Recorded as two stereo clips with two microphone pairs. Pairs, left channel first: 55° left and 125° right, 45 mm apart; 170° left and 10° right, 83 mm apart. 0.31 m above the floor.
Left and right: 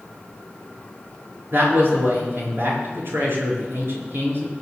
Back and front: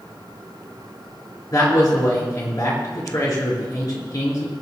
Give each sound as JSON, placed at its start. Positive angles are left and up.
{"t": 1.5, "sound": "a man speaking", "azimuth_deg": -150, "distance_m": 4.5}